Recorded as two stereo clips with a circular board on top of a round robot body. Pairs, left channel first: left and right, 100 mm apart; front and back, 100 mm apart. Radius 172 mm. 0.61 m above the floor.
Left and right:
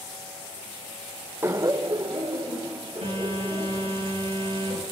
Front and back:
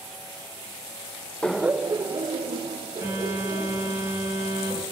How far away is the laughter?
About 0.6 m.